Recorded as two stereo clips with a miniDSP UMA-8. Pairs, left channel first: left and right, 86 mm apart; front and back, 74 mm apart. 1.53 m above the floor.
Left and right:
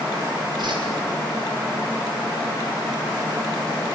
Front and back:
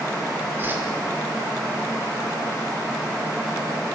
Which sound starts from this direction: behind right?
A whoosh, at 0.6 s.